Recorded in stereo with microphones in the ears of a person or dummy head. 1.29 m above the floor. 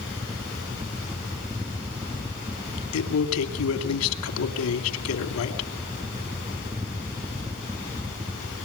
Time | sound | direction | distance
0.0 | a fan | 10° right (ahead or behind) | 0.9 m
2.9 | a man speaking | 80° left | 2.5 m